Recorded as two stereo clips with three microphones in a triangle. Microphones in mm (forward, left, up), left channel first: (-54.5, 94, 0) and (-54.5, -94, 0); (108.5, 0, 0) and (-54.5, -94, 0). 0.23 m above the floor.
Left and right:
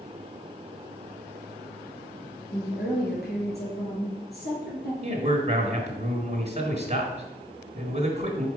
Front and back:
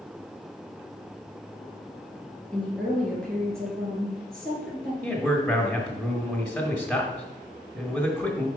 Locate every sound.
2.5 s a woman speaking: 115° left, 3.5 m
5.0 s a man speaking: 60° right, 1.3 m